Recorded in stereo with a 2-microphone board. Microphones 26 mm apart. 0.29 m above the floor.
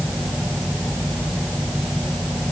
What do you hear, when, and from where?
Only background noise.